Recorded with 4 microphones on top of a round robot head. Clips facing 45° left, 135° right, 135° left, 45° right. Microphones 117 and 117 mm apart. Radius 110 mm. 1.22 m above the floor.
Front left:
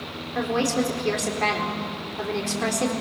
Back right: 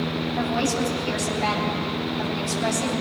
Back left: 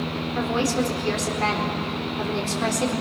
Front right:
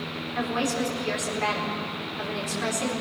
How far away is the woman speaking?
About 4 m.